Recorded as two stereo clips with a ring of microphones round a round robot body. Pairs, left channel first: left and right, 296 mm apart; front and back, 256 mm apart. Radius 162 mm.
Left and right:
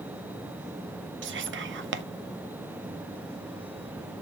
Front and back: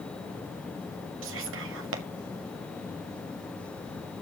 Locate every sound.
1.2 s whispering: 140° right, 1.5 m